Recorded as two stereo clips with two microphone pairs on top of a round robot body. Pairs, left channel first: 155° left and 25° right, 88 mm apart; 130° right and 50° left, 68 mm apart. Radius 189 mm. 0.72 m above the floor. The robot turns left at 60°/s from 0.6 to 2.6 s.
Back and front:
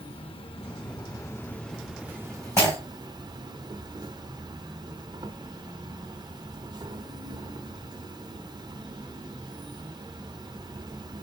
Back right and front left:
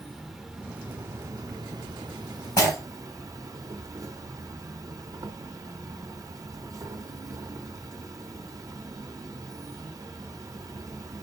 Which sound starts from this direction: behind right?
Breaking glass, at 2.6 s.